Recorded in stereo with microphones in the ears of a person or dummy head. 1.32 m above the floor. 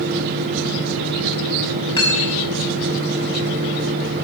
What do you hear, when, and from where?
2.0 s cutlery clinking: 30° left (ahead or behind), 5.5 m